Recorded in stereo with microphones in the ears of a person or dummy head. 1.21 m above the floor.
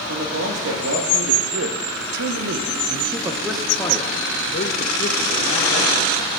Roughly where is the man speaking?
Right.